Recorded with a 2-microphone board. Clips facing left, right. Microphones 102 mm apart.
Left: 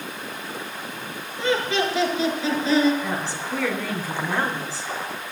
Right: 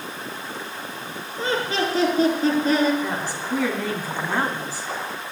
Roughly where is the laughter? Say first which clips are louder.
Left 1 dB; right.